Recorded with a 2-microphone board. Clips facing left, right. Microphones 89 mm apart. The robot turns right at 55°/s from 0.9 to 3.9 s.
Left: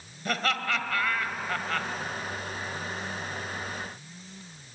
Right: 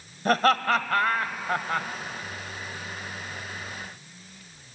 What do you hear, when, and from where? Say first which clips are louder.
0.2 s laughter: right 8 dB; 45° right (ahead or behind), 1.5 m; by 1.9 s 20° right (ahead or behind), 1.5 m